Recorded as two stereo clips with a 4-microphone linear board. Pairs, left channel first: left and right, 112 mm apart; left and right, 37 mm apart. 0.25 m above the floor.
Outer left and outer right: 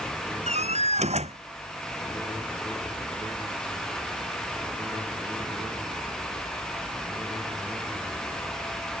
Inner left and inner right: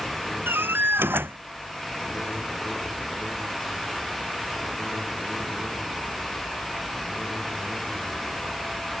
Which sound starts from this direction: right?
A door slam, at 0.5 s.